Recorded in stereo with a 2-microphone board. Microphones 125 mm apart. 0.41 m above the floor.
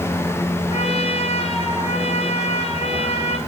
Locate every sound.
0.7 s a trumpet: 60° left (ahead or behind), 3.5 m